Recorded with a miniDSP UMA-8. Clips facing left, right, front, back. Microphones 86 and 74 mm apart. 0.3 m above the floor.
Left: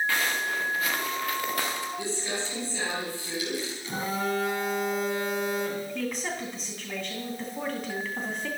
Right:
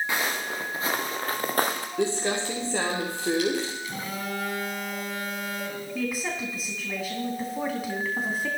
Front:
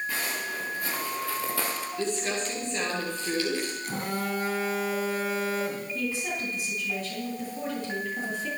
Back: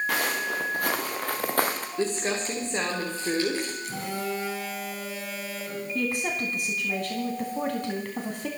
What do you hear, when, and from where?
0.1 s footsteps: 160° right, 3 m; by 1.9 s 135° right, 2 m
2.0 s crumpling: 120° right, 5 m
3.8 s a phone buzzing: 35° left, 2.5 m
6.0 s a woman speaking: 170° right, 2.5 m